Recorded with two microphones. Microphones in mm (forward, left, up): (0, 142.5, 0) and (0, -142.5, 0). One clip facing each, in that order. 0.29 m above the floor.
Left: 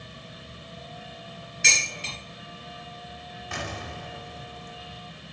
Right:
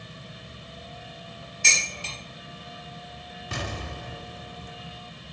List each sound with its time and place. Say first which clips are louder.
1.6 s dishes clattering: left 2 dB; 75° left (ahead or behind), 3.5 m
3.5 s an explosion: right 1 dB; 45° right (ahead or behind), 0.8 m